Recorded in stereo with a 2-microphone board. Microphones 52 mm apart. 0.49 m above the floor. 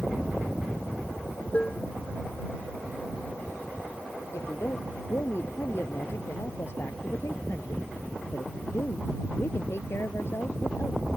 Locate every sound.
1.5 s dishes clattering: 30° left (ahead or behind)
4.3 s a woman speaking: 55° left (ahead or behind)